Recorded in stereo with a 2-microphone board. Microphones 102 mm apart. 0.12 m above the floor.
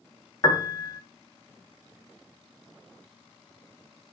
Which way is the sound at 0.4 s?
45° left (ahead or behind).